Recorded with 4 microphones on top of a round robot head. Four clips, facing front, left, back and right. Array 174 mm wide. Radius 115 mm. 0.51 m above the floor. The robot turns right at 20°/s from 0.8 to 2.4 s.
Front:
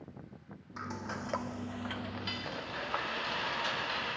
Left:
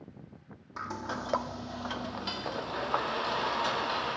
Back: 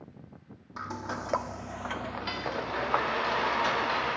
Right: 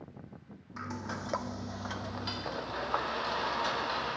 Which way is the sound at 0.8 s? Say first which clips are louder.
Left 3 dB, back 4 dB; 135° left.